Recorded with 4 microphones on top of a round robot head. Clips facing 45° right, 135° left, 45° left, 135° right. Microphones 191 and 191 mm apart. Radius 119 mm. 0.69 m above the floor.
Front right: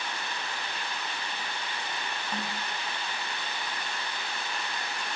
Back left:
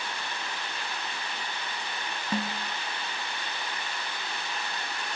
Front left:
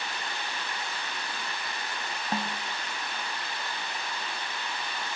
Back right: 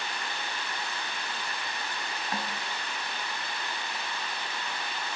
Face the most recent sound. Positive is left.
turn(degrees=110)